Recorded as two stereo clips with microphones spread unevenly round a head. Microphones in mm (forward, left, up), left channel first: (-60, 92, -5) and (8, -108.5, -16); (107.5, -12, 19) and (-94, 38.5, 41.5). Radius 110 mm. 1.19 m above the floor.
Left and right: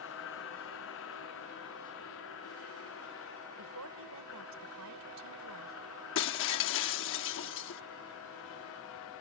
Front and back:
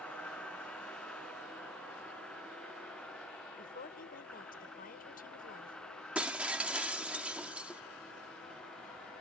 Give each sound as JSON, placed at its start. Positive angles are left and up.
{"t": 0.0, "sound": "a vehicle", "azimuth_deg": 70}
{"t": 3.6, "sound": "a woman speaking", "azimuth_deg": -65}
{"t": 6.2, "sound": "breaking glass", "azimuth_deg": 85}